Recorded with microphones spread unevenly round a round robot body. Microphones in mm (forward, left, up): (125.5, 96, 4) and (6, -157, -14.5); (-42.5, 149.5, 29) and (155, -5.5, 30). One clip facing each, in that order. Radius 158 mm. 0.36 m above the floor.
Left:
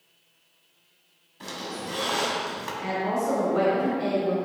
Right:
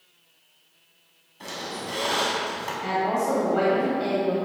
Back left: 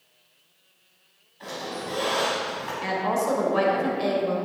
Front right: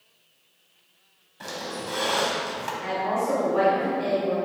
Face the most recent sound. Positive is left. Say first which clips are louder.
# right 1 dB, back left 1 dB
turn(degrees=145)